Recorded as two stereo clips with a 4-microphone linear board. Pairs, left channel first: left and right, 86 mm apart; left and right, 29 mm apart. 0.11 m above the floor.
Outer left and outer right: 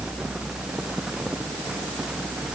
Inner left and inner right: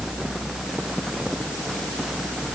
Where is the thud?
I don't hear a thud.